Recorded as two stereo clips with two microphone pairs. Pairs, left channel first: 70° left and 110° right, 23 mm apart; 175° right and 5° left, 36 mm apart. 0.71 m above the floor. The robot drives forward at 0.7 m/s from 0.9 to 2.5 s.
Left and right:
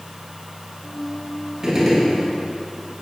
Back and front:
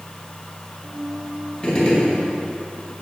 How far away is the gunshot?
About 1.3 m.